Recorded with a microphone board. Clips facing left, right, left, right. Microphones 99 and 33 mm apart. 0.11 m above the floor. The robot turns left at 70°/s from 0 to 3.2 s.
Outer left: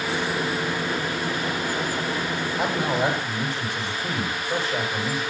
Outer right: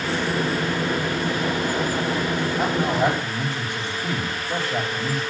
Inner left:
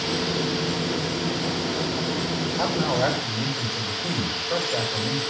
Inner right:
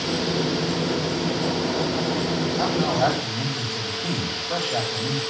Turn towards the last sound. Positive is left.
turn(degrees=-75)